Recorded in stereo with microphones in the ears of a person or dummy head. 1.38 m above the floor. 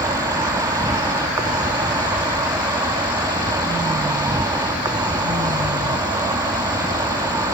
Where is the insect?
15° right (ahead or behind).